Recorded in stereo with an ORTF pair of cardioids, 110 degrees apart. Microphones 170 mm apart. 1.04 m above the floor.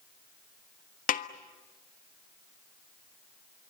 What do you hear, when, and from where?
1.1 s a snare drum: 55° left, 1.4 m